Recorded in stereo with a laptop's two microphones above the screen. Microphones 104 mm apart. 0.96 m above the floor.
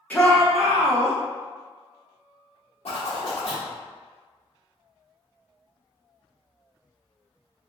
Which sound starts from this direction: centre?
A shout, at 0.1 s.